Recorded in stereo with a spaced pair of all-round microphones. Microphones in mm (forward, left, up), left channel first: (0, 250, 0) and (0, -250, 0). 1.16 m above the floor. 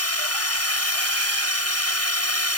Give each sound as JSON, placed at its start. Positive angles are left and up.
{"t": 0.0, "sound": "a drone", "side_deg": 30}